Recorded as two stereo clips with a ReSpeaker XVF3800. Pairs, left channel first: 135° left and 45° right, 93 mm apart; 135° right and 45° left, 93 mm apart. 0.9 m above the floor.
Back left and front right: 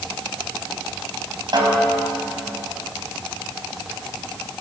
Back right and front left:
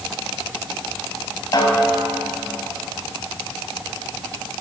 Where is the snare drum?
85° right, 5.5 m.